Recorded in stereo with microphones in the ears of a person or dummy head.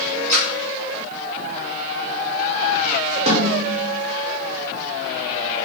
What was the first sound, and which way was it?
A splash, 5° left (ahead or behind).